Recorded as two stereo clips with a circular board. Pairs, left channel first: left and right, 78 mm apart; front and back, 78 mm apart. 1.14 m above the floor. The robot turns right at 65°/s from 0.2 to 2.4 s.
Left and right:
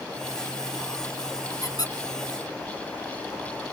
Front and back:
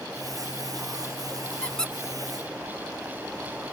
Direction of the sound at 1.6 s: 70° left.